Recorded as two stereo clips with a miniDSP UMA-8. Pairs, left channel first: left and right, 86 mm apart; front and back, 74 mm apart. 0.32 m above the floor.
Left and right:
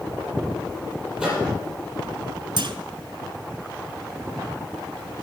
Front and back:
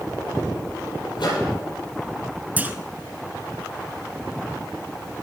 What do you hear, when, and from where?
1.2 s a microwave: 10° right, 6 m
2.6 s a clunk: 110° right, 0.6 m